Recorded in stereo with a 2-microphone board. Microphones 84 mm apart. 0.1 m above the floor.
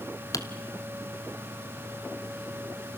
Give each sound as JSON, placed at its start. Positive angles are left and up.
{"t": 0.3, "sound": "typing on a keyboard", "side_deg": 45, "distance_m": 1.1}